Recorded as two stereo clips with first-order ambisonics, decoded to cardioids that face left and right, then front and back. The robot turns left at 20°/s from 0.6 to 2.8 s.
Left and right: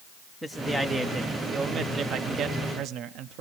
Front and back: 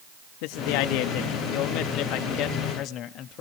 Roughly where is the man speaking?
Ahead.